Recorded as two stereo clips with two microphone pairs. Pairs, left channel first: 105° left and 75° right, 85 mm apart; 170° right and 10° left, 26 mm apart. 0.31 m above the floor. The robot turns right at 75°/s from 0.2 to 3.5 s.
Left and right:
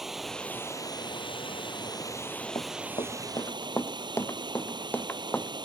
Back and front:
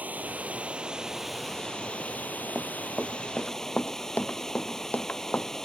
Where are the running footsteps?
80° left; by 5.5 s 175° left.